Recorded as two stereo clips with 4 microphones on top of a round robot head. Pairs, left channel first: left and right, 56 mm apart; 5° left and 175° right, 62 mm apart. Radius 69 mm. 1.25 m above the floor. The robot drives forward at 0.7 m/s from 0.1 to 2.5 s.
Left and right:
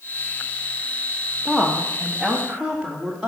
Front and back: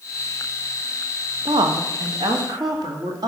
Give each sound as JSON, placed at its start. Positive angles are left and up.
{"t": 1.4, "sound": "a woman speaking", "azimuth_deg": 180, "distance_m": 1.2}